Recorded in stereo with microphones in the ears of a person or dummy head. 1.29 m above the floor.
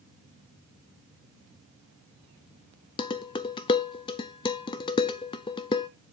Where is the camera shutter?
I don't hear a camera shutter.